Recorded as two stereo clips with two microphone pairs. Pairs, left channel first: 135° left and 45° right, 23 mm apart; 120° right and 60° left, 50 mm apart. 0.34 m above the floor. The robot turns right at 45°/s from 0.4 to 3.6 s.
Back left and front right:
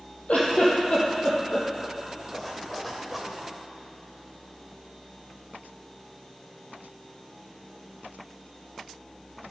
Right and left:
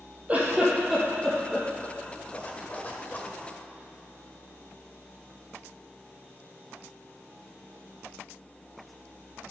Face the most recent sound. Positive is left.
turn(degrees=-95)